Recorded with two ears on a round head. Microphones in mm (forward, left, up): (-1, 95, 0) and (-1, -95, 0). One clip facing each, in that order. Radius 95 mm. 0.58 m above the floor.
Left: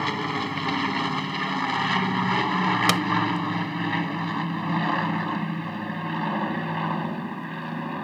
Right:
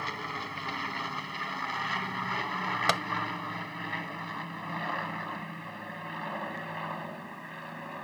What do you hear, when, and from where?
0.0 s an aircraft: 75° left (ahead or behind); by 8.0 s 70° left (ahead or behind)
2.9 s tapping: 45° left (ahead or behind)